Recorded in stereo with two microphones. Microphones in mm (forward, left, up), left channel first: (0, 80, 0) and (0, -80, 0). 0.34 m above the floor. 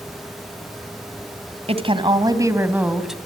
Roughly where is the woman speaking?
Right.